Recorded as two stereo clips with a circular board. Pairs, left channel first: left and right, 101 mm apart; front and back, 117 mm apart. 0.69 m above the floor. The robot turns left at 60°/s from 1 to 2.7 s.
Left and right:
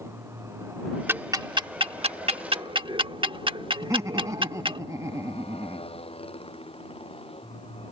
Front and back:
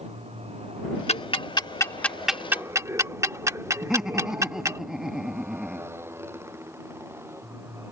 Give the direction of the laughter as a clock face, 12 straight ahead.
3 o'clock.